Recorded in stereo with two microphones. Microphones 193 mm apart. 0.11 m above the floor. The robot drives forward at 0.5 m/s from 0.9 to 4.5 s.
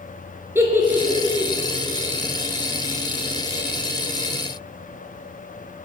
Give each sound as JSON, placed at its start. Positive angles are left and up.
{"t": 0.6, "sound": "a giggle", "side_deg": -15, "distance_m": 0.7}